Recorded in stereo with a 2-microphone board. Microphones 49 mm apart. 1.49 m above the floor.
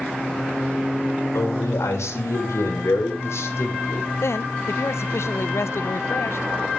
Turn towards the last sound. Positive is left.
turn(degrees=70)  # may be behind; listen again after turning